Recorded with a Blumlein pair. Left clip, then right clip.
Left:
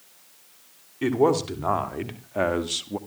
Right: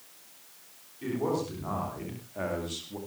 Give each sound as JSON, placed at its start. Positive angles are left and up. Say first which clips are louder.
{"t": 1.0, "sound": "a man speaking", "louder": "left 10 dB", "azimuth_deg": 55, "distance_m": 3.5}